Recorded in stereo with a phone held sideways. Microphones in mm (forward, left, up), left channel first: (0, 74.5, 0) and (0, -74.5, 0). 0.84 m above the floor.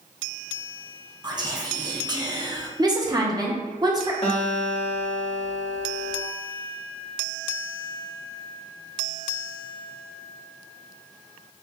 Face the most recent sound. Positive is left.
turn(degrees=45)  # may be behind; listen again after turning